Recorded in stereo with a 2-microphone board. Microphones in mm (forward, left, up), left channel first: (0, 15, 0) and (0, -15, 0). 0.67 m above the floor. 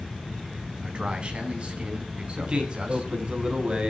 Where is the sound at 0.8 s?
35° right (ahead or behind), 4.5 m.